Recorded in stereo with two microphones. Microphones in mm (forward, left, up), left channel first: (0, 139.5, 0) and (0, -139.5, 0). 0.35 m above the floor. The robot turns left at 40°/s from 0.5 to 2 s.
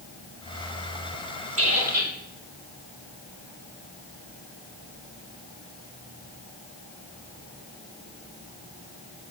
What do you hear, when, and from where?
1.6 s a squeak: 55° right (ahead or behind), 1.3 m; by 2.1 s 75° right (ahead or behind), 1.3 m